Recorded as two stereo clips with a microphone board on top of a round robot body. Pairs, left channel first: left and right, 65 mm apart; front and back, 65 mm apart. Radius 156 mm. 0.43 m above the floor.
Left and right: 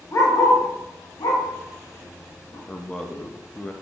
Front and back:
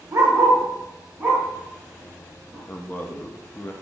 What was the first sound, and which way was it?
A dog barking, 135° left.